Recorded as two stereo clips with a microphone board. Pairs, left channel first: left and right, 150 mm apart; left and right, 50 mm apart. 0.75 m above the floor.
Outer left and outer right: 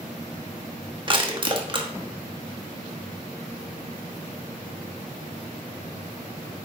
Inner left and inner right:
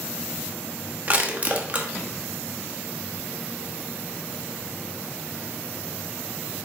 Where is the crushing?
35° right (ahead or behind), 1.2 m.